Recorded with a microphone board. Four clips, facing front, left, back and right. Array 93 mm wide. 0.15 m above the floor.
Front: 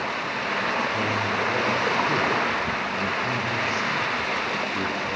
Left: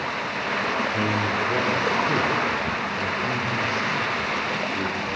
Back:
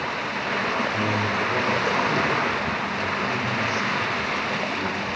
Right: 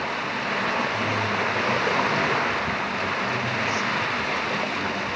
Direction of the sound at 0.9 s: 65° left.